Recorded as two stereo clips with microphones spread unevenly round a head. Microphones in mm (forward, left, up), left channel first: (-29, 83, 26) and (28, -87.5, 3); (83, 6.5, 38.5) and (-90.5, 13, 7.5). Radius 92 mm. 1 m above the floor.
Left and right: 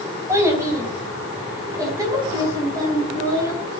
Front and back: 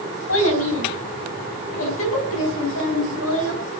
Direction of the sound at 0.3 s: 5° left.